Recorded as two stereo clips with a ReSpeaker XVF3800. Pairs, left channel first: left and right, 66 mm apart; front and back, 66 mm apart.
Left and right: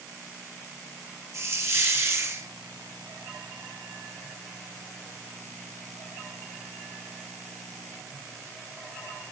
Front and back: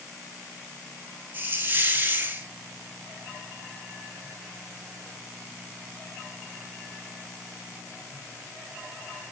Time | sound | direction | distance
1.3 | a hiss | 125° right | 1.5 m